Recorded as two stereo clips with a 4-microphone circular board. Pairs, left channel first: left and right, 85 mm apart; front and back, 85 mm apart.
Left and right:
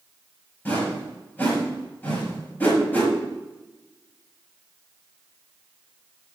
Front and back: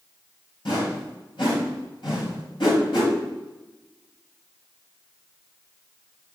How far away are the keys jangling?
I don't hear keys jangling.